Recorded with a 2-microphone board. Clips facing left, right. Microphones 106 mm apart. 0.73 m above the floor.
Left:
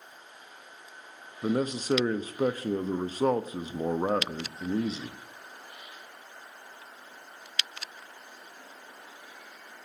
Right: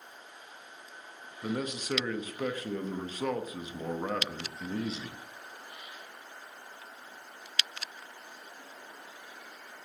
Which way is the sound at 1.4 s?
35° left (ahead or behind).